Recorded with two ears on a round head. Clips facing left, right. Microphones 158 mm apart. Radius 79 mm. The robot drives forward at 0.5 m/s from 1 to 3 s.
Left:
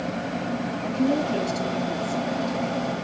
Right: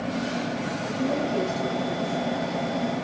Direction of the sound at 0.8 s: 25° left (ahead or behind).